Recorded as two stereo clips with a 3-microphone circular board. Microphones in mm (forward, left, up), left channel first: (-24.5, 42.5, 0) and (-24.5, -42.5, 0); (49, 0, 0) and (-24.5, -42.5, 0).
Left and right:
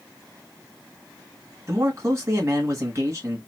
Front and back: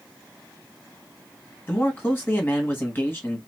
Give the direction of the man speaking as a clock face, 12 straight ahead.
1 o'clock.